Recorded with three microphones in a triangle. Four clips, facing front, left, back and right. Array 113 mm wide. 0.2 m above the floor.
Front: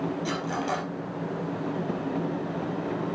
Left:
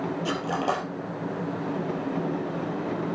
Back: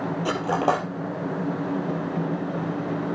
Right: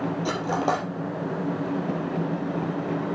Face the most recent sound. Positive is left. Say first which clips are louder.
# right 2 dB, back 6 dB
turn(degrees=-160)